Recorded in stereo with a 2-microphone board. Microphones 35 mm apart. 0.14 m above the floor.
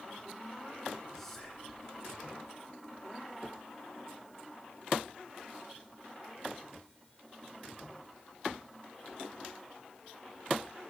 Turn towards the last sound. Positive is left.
turn(degrees=10)  # may be behind; listen again after turning